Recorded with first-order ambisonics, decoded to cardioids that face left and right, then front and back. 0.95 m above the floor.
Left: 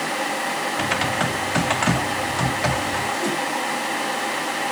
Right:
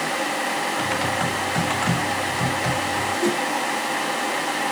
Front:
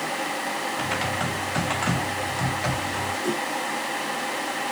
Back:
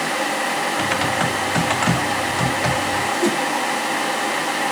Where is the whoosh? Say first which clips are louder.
Right 2 dB, back 7 dB; 160° right, 1.4 m.